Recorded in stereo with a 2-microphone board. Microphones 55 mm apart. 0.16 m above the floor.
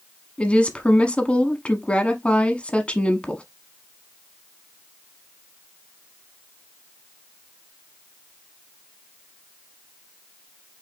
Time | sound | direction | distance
0.4 | a woman speaking | 20° left (ahead or behind) | 1.0 m